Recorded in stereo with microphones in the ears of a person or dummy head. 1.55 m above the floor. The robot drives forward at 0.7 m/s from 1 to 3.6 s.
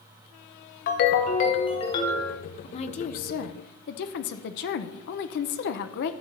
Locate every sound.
0.9 s a ringtone: 50° left (ahead or behind), 0.8 m; by 2.4 s 25° left (ahead or behind), 1.5 m
2.6 s a woman speaking: 35° left (ahead or behind), 1.0 m; by 6.1 s 55° left (ahead or behind), 0.7 m